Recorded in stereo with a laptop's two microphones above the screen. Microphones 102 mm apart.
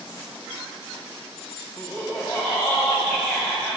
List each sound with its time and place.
1.8 s laughter: 25° left (ahead or behind), 1.5 m